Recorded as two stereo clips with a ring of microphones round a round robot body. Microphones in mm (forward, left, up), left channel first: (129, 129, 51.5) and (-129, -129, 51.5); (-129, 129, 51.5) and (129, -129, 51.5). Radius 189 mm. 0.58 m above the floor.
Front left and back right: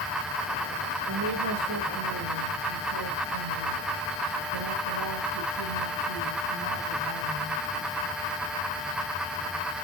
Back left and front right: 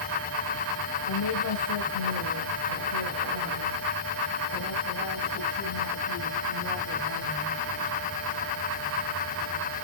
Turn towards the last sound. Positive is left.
turn(degrees=-175)